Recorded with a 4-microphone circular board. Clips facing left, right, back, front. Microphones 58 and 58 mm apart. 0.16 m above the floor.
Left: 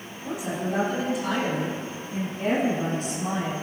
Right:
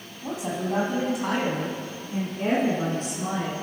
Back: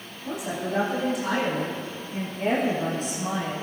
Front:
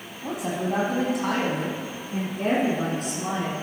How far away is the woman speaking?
About 4.5 m.